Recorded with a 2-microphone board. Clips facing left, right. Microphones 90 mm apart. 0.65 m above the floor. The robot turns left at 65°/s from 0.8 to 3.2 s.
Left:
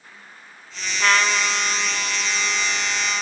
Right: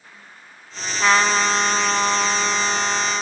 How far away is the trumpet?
About 1.0 m.